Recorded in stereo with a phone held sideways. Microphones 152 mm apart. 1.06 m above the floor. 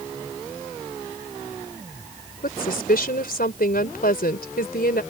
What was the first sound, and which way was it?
A woman speaking, 80° left.